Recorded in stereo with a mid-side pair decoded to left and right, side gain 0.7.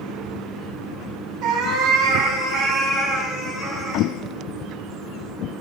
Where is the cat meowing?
40° right, 3.5 m; by 4.1 s 5° left, 6 m.